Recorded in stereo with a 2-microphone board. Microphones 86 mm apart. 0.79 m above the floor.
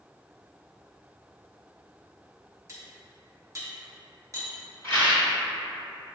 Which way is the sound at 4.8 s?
25° left (ahead or behind).